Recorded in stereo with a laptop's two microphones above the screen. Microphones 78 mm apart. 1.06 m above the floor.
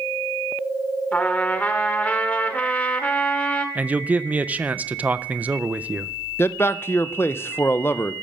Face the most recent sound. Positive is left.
turn(degrees=30)  # may be behind; listen again after turning